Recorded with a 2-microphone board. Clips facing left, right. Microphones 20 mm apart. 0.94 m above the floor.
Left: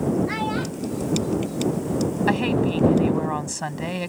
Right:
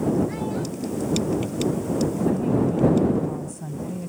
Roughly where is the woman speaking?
Left.